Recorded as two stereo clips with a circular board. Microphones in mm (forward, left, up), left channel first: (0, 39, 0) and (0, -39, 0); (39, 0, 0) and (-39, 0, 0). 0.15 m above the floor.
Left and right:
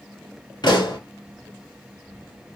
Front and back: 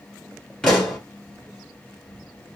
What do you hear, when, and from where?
0.6 s a pop: 80° left, 1.8 m